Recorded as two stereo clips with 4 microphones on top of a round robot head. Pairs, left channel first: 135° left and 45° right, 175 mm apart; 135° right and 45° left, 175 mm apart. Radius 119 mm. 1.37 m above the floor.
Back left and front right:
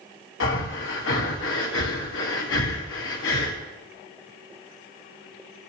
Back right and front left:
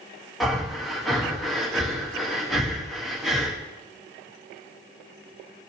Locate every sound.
0.4 s breathing: 135° left, 1.7 m